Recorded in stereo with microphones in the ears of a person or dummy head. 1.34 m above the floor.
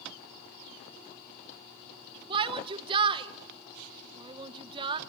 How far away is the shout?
About 0.9 m.